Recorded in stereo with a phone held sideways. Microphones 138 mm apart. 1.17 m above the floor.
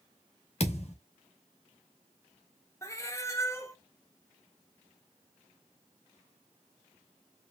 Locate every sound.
0.6 s a thud: 50° left (ahead or behind), 0.9 m
2.8 s a cat meowing: 20° left (ahead or behind), 0.6 m